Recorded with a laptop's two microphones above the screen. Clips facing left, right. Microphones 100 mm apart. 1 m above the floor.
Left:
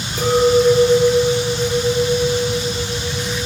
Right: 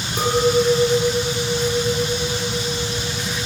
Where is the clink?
85° right, 7.5 m.